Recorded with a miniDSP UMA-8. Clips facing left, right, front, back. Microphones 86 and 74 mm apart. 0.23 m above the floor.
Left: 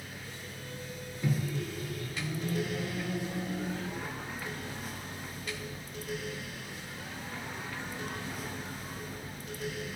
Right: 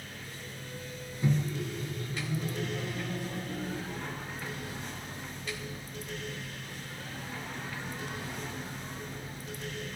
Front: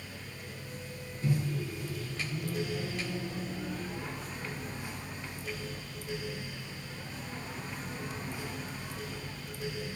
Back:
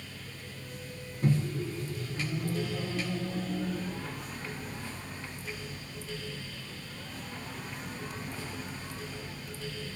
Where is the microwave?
145° right, 1.7 m.